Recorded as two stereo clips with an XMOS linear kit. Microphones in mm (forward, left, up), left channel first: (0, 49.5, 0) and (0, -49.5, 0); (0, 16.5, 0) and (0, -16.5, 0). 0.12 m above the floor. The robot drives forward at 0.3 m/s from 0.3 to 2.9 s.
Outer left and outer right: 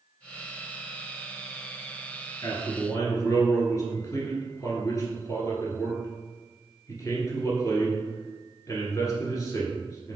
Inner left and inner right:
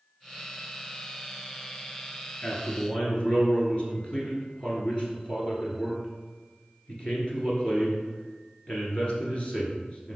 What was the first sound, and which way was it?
A man speaking, 35° left (ahead or behind).